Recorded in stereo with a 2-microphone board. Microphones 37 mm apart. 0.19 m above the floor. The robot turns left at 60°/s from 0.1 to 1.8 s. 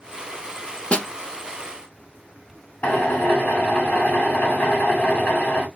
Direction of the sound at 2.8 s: 50° left (ahead or behind).